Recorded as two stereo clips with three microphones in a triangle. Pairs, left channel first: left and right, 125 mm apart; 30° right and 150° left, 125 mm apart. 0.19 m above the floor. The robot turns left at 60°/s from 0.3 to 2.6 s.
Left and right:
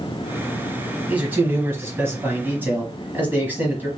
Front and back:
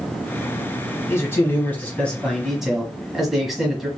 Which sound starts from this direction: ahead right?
A man speaking, at 1.1 s.